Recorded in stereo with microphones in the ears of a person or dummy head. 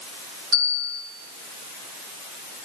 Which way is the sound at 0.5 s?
85° right.